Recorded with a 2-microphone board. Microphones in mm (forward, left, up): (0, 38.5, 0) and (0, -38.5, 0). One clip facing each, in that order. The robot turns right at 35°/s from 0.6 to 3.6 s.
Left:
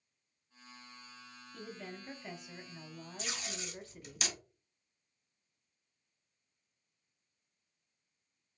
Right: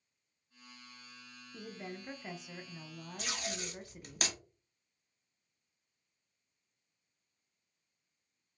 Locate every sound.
1.5 s a woman speaking: 15° right (ahead or behind), 0.6 m
3.2 s tape being pulled: 65° right (ahead or behind), 0.8 m; by 4.4 s 50° right (ahead or behind), 0.8 m